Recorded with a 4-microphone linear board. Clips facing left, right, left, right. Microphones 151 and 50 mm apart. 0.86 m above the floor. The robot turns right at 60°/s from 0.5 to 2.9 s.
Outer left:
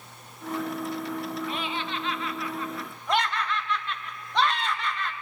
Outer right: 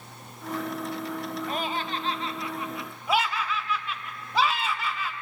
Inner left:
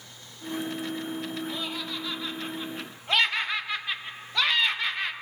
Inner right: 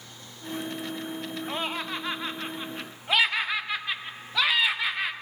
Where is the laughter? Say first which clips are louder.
Outer right 2 dB, inner right 3 dB; 95° right, 0.6 m; by 5.1 s 10° right, 0.6 m.